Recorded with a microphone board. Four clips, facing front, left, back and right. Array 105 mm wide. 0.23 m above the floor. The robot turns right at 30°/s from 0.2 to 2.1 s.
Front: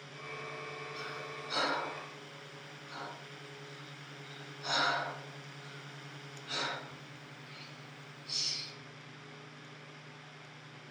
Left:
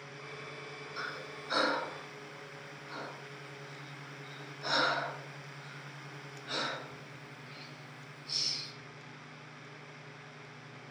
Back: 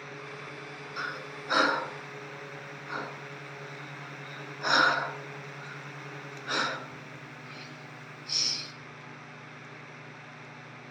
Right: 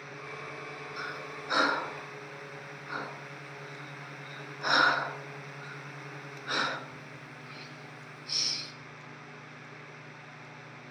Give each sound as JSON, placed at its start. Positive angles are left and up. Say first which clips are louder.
{"t": 1.0, "sound": "breathing", "louder": "right 1 dB, back 5 dB", "azimuth_deg": 180, "distance_m": 1.3}